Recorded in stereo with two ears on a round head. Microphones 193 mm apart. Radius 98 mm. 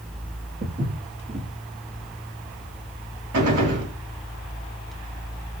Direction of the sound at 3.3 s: 85° right.